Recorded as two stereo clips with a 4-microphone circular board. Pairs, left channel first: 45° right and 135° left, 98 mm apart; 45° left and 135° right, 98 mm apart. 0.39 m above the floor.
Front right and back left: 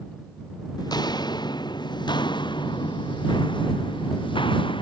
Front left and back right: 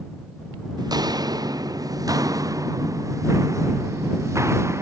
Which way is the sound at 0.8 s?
90° right.